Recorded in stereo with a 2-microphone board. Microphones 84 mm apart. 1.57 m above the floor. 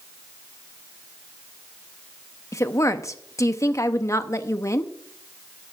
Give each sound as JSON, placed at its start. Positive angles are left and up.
{"t": 2.5, "sound": "a woman speaking", "side_deg": 40, "distance_m": 0.8}